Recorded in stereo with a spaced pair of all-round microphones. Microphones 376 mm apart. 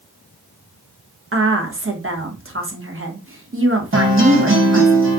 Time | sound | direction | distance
1.3 | a woman speaking | 35° right (ahead or behind) | 0.7 m
3.9 | a guitar | 35° right (ahead or behind) | 0.9 m